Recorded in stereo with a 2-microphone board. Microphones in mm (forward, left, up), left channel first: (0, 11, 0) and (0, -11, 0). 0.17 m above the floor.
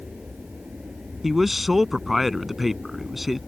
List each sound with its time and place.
0.0 s an aircraft: 50° right (ahead or behind)
1.2 s a man speaking: 10° right (ahead or behind)